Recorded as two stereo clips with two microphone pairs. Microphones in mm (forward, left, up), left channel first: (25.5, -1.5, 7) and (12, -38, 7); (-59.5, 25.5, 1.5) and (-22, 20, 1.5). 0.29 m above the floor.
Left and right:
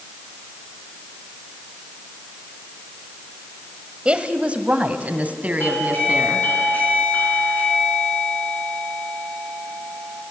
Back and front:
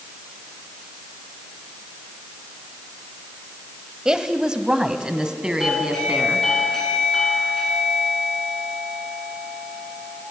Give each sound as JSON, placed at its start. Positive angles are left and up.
{"t": 4.0, "sound": "a woman speaking", "azimuth_deg": -70, "distance_m": 1.6}
{"t": 5.6, "sound": "a doorbell", "azimuth_deg": 95, "distance_m": 5.0}